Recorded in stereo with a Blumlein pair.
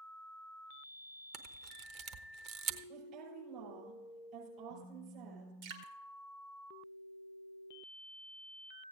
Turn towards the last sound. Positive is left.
turn(degrees=-50)